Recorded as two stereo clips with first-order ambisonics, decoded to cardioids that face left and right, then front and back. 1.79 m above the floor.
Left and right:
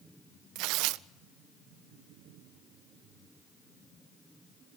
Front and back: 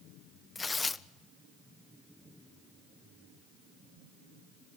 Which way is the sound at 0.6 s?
75° right.